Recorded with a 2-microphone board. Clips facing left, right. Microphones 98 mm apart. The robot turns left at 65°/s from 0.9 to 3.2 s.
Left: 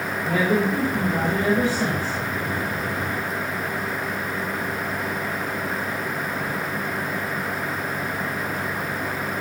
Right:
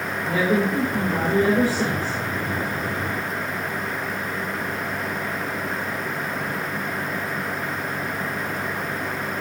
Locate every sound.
0.2 s a woman speaking: 5° right, 4 m; by 2.2 s 85° right, 4 m